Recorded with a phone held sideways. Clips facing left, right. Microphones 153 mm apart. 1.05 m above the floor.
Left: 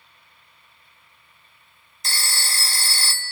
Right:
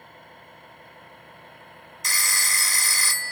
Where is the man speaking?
I don't hear a man speaking.